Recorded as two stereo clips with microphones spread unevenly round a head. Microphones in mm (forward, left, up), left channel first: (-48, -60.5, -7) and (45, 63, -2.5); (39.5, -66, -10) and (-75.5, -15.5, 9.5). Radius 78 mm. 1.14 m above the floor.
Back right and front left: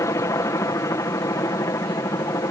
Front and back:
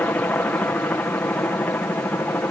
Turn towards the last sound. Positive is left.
turn(degrees=-80)